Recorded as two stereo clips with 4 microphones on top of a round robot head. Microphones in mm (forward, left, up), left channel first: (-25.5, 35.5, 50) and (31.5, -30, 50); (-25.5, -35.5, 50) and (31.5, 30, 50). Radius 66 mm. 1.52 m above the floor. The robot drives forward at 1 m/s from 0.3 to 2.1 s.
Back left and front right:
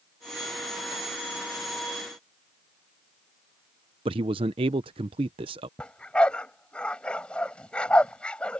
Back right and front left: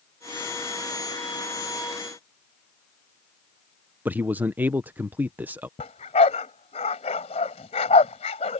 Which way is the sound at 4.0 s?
20° right.